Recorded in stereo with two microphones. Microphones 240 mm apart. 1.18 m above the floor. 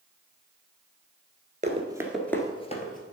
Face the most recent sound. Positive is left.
turn(degrees=35)  # may be behind; listen again after turning